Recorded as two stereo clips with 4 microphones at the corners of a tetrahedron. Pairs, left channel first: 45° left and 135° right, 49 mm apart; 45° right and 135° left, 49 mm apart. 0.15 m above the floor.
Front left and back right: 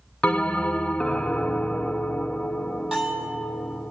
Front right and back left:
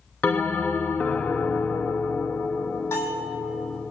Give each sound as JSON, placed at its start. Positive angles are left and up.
{"t": 0.2, "sound": "a bell", "azimuth_deg": -15, "distance_m": 0.5}
{"t": 2.9, "sound": "a bell", "azimuth_deg": -60, "distance_m": 3.5}